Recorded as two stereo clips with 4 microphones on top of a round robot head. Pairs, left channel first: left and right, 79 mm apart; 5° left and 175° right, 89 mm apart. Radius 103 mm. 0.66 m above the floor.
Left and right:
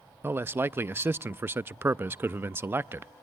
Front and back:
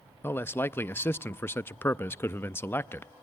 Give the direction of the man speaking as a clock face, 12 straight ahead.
1 o'clock.